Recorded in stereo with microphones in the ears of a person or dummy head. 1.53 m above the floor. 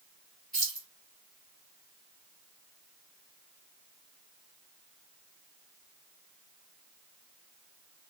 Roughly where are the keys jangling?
Centre.